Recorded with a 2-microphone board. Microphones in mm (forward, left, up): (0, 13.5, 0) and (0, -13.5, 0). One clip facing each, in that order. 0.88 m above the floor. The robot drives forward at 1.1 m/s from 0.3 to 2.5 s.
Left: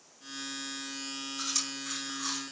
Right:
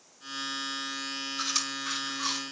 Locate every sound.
1.4 s chewing: 25° right (ahead or behind), 5 m; by 2.4 s 35° right (ahead or behind), 4 m